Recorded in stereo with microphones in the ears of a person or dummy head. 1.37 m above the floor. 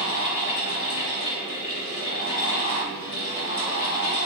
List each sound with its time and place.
0.0 s a fan: 65° left (ahead or behind), 1.6 m